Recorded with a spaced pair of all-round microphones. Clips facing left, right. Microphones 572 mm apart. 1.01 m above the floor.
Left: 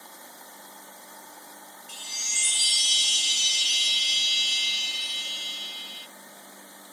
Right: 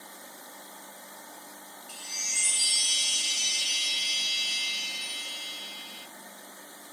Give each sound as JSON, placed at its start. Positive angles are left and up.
{"t": 1.9, "sound": "a chime", "side_deg": 65, "distance_m": 0.5}